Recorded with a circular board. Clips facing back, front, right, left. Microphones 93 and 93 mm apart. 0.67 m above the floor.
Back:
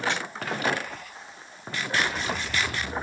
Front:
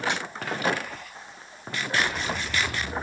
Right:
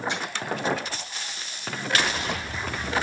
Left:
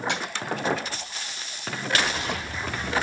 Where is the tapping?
75° left, 3.5 m.